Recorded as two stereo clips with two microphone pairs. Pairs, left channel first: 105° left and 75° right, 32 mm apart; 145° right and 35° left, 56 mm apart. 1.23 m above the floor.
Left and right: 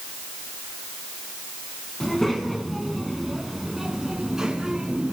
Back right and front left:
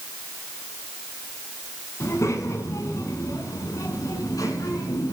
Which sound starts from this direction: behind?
A child speaking, at 2.0 s.